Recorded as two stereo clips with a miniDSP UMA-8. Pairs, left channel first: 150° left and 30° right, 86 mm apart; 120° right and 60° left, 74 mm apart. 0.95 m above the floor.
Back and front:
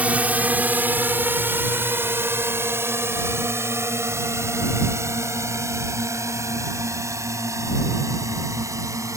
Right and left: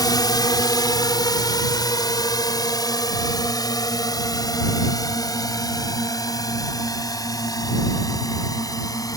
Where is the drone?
105° right; by 9.2 s 85° right.